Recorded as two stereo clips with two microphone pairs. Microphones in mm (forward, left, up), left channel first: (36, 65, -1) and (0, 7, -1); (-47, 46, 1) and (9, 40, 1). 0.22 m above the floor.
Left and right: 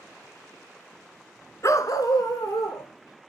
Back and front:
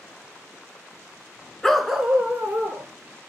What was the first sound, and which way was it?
A dog barking, 95° left.